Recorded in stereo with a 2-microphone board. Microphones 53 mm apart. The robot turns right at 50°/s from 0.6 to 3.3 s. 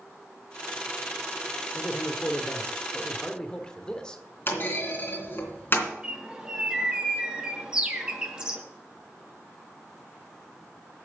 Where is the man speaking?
75° left, 1.2 m; by 4.2 s 150° left, 1.2 m.